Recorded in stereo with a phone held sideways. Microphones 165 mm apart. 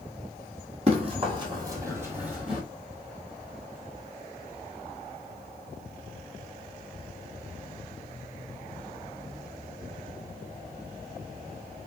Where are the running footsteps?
40° right (ahead or behind), 1.7 m; by 2.6 s centre (ahead or behind), 1.5 m.